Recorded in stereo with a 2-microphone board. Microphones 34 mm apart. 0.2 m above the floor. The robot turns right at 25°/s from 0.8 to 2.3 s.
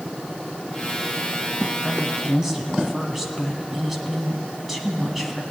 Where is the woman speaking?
Centre (ahead or behind), 1.4 m; by 5.4 s 10° right (ahead or behind), 1.4 m.